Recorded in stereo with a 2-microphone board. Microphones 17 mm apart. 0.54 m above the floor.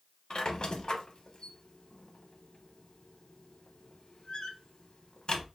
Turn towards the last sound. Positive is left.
turn(degrees=55)  # may be behind; listen again after turning